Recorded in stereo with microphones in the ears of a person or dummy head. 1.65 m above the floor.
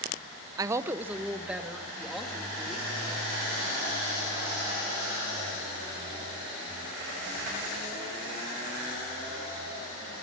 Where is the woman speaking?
20° right (ahead or behind), 0.8 m; by 3.0 s centre (ahead or behind), 4 m.